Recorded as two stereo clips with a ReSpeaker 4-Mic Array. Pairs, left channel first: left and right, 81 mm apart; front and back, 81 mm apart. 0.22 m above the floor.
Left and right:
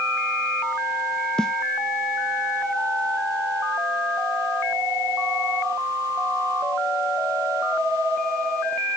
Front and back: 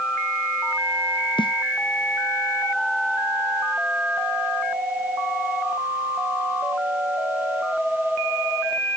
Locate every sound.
1.4 s a snare drum: 10° left